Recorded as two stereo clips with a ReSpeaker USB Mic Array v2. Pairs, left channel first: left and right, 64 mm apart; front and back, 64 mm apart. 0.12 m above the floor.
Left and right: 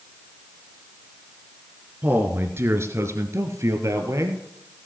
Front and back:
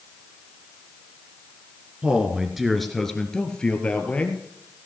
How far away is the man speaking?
About 1.6 m.